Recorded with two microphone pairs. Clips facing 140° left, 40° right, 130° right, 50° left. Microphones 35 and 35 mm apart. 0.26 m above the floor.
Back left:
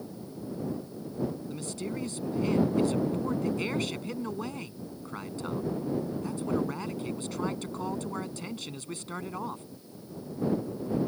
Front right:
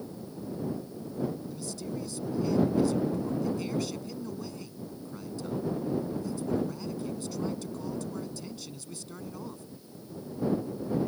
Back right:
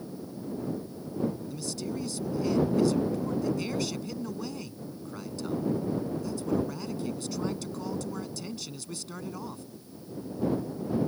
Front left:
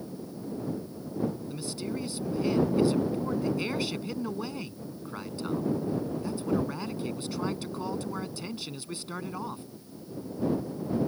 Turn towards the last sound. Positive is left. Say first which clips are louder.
# back left 1 dB, even
turn(degrees=110)